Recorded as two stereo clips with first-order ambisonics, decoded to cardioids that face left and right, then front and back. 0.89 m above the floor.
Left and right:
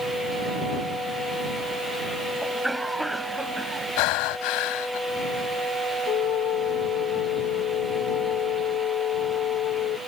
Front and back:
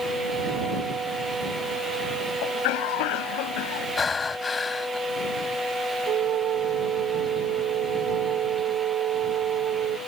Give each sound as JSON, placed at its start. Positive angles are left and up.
{"t": 2.4, "sound": "a cough", "azimuth_deg": 0}
{"t": 4.0, "sound": "breathing", "azimuth_deg": 75}
{"t": 6.1, "sound": "a flute", "azimuth_deg": 130}